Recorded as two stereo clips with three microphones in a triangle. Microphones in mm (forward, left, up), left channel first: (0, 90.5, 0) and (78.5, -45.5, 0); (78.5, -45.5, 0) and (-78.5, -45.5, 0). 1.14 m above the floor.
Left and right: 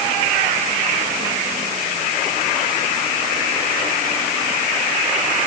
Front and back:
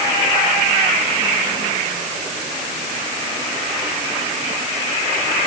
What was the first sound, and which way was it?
Only background noise.